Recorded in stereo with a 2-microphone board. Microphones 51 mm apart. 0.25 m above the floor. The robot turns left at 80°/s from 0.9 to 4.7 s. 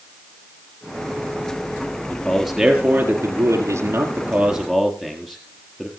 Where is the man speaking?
20° left (ahead or behind), 4.5 m; by 5.9 s 5° left (ahead or behind), 4.5 m.